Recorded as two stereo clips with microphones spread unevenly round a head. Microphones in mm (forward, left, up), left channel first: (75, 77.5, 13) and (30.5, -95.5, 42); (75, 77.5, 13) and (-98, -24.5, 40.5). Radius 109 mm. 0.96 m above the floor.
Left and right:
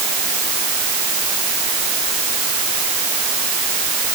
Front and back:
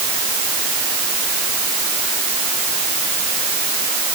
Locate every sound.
Only background noise.